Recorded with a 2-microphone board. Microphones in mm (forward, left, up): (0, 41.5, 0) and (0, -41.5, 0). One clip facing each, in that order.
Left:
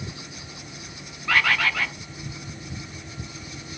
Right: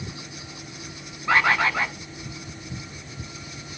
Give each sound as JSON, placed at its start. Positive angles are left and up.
{"t": 1.3, "sound": "a bird", "side_deg": -25, "distance_m": 0.6}